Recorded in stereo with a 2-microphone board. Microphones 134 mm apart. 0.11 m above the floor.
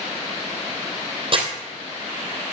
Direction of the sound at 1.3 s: 45° right (ahead or behind).